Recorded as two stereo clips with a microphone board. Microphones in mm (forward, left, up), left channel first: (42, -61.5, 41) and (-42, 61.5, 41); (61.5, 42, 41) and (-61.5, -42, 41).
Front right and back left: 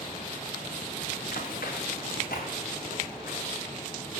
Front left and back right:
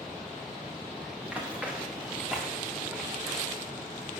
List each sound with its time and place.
1.2 s running footsteps: 65° right, 5 m